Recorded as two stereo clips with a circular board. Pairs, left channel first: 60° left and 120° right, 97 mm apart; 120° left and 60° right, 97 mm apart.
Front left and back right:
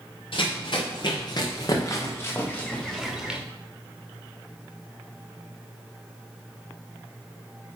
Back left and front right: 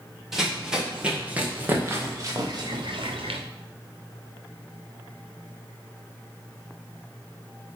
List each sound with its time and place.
0.3 s running footsteps: 25° left, 3.5 m; by 3.4 s 40° right, 2 m